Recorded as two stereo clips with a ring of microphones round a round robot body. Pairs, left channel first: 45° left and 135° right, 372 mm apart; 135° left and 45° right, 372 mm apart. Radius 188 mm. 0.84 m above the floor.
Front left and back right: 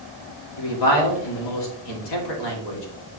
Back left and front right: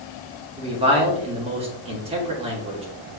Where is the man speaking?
30° left, 2 m.